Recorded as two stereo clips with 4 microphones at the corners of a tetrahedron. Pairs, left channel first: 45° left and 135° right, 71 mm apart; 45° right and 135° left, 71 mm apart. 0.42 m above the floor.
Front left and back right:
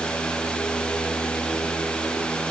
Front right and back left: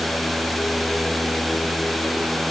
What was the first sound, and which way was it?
Only background noise.